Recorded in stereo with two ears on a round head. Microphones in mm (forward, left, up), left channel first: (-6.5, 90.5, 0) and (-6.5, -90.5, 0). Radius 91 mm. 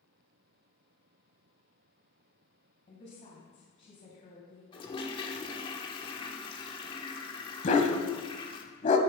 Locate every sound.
2.9 s a woman speaking: 40° left (ahead or behind), 3 m
4.7 s a toilet flushing: 25° left (ahead or behind), 1.2 m
7.6 s a dog barking: 35° left (ahead or behind), 1.2 m